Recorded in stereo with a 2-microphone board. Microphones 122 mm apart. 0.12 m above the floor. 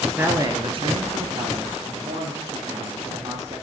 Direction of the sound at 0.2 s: 15° right (ahead or behind).